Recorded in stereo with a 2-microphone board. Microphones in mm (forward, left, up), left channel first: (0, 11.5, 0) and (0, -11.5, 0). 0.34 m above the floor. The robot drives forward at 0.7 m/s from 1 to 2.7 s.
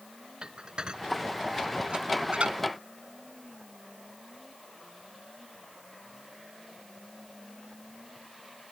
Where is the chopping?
No chopping in this recording.